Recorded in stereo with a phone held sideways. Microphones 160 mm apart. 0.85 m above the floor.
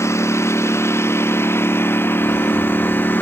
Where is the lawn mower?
15° left (ahead or behind); by 3.2 s 10° left (ahead or behind).